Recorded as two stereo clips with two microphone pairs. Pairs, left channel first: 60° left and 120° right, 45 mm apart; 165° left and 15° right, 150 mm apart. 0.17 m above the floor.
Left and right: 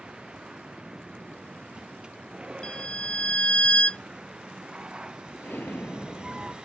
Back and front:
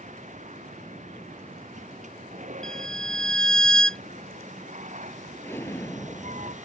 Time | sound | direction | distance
0.0 | a vehicle | 50° right | ?
2.6 | a violin | 90° left | ?
5.4 | an explosion | 95° left | ?